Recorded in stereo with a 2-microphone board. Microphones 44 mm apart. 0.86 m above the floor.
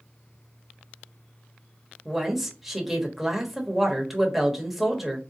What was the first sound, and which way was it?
A woman speaking, 5° right (ahead or behind).